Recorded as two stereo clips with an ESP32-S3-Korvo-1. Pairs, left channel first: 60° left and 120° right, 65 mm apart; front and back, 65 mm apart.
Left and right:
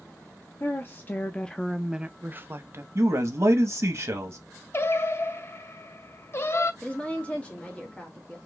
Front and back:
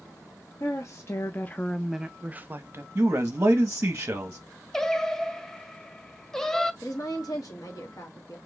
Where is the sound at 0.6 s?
20° left, 0.8 m; by 2.9 s 150° right, 0.7 m.